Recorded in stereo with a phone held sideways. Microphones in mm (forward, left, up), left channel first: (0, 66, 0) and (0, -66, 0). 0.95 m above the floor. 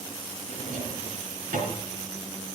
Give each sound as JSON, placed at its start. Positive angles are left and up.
{"t": 0.5, "sound": "a drawer", "side_deg": -85, "distance_m": 5.0}